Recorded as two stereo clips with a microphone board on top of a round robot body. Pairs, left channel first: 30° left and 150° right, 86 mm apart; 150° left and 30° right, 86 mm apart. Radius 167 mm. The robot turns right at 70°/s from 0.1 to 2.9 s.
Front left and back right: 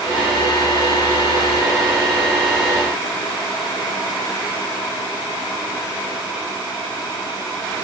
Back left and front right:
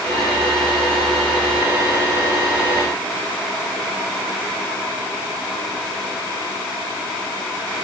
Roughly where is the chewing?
I don't hear chewing.